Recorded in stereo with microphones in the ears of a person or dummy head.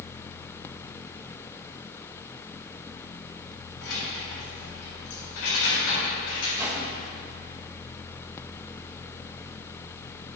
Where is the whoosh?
10° right (ahead or behind), 1.4 m.